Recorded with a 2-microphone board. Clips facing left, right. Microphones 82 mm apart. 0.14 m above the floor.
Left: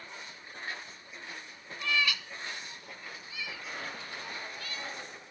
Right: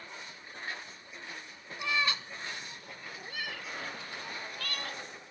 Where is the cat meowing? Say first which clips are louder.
Even; 20° right (ahead or behind); by 5.0 s 65° right (ahead or behind).